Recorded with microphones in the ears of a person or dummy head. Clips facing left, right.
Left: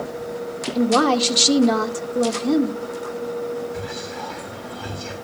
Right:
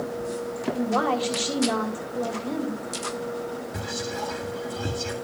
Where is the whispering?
60° right (ahead or behind), 2 m.